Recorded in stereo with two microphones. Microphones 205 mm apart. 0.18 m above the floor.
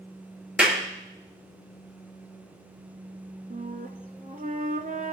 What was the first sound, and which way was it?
A clap, 5° right (ahead or behind).